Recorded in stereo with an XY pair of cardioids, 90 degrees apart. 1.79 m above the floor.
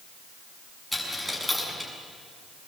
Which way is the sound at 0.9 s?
5° left.